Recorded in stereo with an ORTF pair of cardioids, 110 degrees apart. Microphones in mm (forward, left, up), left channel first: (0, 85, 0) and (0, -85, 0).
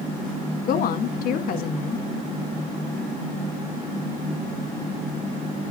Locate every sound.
0.7 s a woman speaking: 70° left, 1.4 m